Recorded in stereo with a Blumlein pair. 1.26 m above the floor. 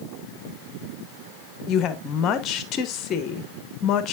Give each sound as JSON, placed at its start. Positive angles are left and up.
{"t": 1.7, "sound": "a woman speaking", "azimuth_deg": 30, "distance_m": 1.0}